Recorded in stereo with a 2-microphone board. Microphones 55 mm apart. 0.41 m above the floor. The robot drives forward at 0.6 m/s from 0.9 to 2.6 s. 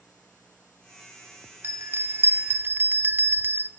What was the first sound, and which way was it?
A bell, 50° right (ahead or behind).